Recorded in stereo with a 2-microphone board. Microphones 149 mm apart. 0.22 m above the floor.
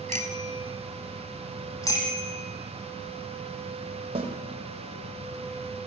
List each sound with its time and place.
0.1 s a bicycle bell: 55° right (ahead or behind), 3 m
1.8 s a bicycle bell: 20° left (ahead or behind), 7 m
4.2 s a snare drum: 45° right (ahead or behind), 5 m